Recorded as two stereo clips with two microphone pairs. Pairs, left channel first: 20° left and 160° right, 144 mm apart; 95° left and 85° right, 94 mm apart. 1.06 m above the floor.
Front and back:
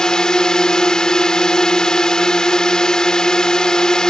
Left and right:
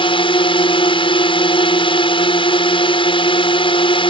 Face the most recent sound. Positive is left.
turn(degrees=105)